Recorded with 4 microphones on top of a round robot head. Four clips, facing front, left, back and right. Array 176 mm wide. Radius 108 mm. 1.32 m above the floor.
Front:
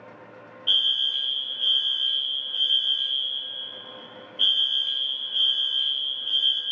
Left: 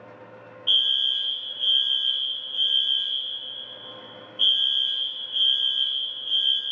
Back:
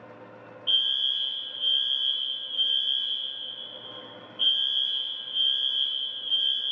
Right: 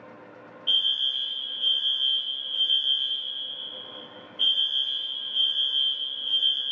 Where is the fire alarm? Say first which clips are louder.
Left 3 dB, front 3 dB; 10° left, 1.1 m.